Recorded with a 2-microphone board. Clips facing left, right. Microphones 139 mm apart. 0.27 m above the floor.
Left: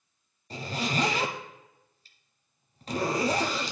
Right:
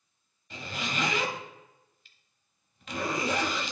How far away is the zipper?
About 1.0 m.